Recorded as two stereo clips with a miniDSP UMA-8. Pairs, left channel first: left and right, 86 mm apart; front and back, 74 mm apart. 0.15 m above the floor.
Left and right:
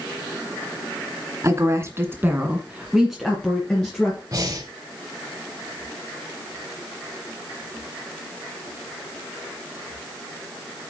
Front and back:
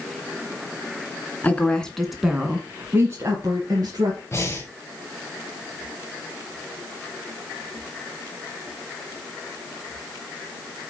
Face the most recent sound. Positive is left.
turn(degrees=-55)